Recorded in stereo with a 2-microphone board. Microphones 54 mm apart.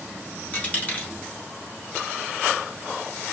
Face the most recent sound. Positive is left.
turn(degrees=25)  # may be behind; listen again after turning